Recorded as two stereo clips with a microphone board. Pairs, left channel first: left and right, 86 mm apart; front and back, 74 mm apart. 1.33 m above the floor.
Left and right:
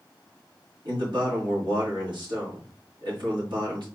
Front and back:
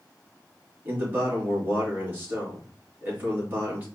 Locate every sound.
0.8 s a man speaking: 115° right, 3 m